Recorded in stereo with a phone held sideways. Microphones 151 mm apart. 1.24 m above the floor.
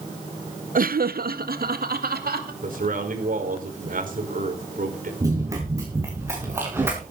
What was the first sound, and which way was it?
Laughter, 65° right (ahead or behind).